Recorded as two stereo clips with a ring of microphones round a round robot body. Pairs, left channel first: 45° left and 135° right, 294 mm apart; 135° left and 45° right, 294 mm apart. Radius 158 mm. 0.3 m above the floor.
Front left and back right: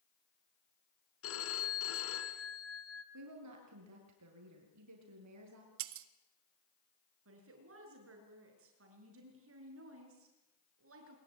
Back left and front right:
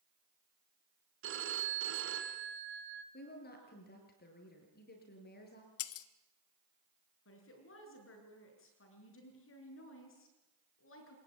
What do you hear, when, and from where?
1.2 s a phone ringing: straight ahead, 2.5 m
3.1 s a woman speaking: 165° right, 7 m
5.8 s breaking glass: straight behind, 0.9 m
7.2 s a woman speaking: straight behind, 6.5 m